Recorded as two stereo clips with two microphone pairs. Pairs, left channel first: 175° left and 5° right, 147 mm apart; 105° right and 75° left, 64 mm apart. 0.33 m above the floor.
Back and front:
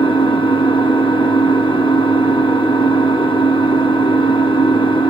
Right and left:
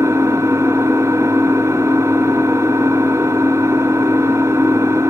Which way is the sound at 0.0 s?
125° left.